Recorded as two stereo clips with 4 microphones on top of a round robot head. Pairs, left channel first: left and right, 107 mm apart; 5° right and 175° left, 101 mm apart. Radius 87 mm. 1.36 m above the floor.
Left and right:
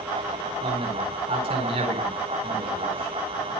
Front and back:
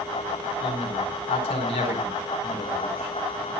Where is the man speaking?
40° right, 4 m.